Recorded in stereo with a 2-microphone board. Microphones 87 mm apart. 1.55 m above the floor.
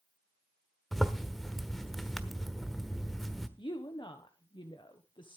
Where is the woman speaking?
65° left (ahead or behind), 1.1 m.